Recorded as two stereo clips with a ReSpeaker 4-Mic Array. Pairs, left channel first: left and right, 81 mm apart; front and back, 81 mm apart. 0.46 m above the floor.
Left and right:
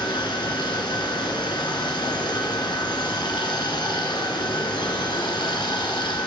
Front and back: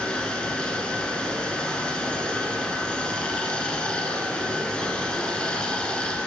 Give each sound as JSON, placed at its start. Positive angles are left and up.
{"t": 0.0, "sound": "running water", "azimuth_deg": 75, "distance_m": 1.1}